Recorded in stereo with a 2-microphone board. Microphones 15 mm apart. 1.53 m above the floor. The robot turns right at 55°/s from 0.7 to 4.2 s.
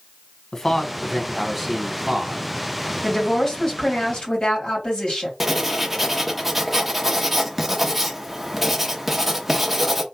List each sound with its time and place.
0.5 s a man speaking: 155° left, 1.2 m; by 2.5 s 110° right, 1.2 m
3.0 s a woman speaking: 15° left, 2.5 m; by 5.3 s 80° left, 2.5 m
5.4 s writing: 10° right (ahead or behind), 0.9 m